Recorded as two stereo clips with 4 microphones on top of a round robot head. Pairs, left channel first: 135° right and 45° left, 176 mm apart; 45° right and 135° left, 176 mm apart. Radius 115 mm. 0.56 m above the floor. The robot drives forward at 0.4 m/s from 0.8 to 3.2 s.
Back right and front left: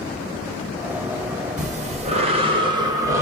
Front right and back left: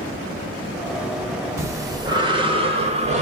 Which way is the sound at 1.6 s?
65° left.